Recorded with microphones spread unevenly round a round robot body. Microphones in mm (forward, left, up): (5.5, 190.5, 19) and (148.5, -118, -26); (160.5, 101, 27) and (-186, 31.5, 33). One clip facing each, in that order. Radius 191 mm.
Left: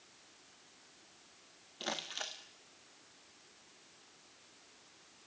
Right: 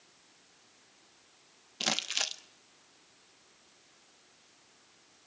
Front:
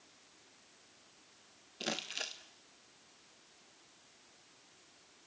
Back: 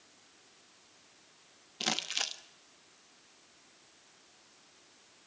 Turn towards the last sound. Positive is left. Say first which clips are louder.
# right 4 dB, back 2 dB
turn(degrees=-95)